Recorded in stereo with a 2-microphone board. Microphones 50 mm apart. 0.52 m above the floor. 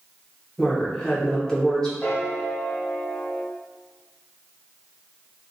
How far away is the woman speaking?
About 0.9 m.